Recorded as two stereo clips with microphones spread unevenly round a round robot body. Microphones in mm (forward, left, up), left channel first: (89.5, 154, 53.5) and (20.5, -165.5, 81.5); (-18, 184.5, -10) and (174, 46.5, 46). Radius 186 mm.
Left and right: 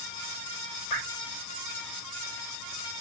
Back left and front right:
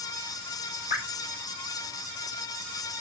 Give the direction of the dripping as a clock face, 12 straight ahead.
9 o'clock.